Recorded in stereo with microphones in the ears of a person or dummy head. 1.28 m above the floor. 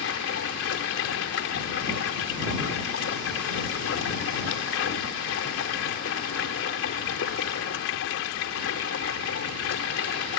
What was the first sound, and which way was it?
Running water, 70° left (ahead or behind).